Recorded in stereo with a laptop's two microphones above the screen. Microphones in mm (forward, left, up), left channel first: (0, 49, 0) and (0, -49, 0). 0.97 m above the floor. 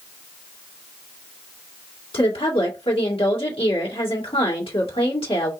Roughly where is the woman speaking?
Left.